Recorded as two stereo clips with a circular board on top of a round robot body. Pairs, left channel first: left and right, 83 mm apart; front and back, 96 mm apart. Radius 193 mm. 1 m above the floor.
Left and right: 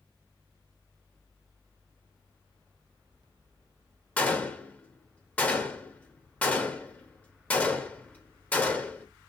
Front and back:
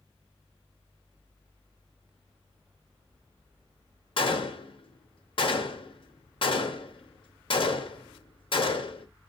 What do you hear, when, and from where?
4.2 s a gunshot: 20° left, 1.3 m